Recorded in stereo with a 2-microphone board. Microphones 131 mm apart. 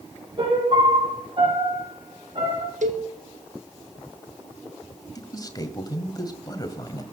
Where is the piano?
45° right (ahead or behind), 5.5 m.